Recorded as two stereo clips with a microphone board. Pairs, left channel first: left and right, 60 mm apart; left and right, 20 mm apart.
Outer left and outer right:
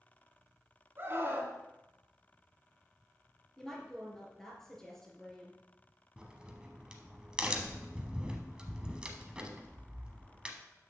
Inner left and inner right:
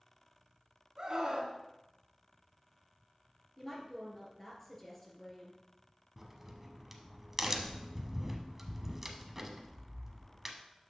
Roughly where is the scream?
Right.